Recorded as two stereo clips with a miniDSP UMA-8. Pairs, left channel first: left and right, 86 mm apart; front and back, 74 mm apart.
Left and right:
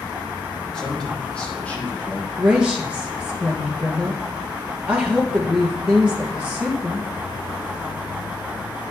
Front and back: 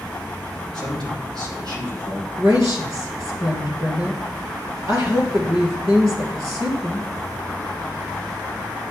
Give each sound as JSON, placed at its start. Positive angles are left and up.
{"t": 0.7, "sound": "a man speaking", "azimuth_deg": 170, "distance_m": 4.0}
{"t": 2.4, "sound": "a woman speaking", "azimuth_deg": -165, "distance_m": 2.0}